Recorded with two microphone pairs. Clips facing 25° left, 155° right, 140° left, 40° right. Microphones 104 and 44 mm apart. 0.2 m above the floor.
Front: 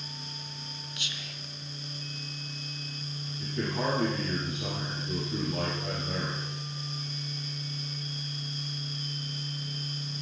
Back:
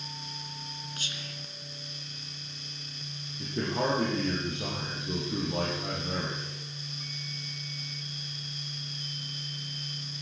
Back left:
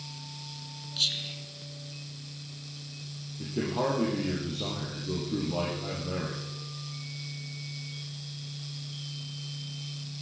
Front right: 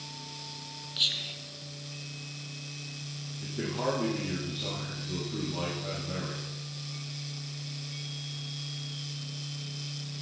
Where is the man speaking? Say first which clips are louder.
Back 1 dB, back left 3 dB; 145° left, 5 m.